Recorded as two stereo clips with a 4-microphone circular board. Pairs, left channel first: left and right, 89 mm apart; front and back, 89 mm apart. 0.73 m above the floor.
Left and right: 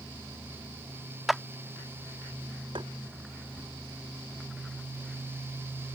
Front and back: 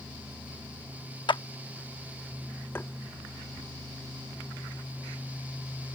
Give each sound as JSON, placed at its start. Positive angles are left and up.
{"t": 1.3, "sound": "a clap", "azimuth_deg": 0}
{"t": 2.8, "sound": "tapping", "azimuth_deg": -65}